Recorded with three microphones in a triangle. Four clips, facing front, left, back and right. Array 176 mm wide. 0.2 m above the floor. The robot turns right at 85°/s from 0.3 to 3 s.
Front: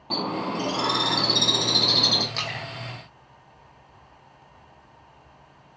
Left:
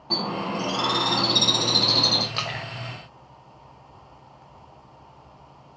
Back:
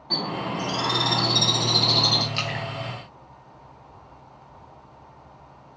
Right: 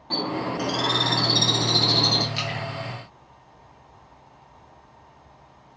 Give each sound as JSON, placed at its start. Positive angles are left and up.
{"t": 0.1, "sound": "a bird", "azimuth_deg": 25, "distance_m": 0.7}
{"t": 2.3, "sound": "a splash", "azimuth_deg": 75, "distance_m": 0.6}